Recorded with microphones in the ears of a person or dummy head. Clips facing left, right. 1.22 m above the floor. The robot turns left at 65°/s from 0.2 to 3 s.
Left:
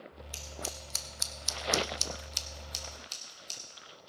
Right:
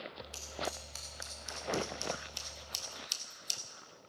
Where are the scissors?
20° left (ahead or behind), 0.9 m; by 3.6 s 15° right (ahead or behind), 0.9 m.